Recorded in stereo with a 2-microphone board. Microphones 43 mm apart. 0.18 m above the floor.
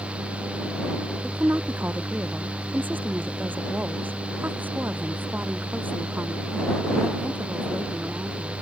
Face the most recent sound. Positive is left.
turn(degrees=-45)  # may be behind; listen again after turning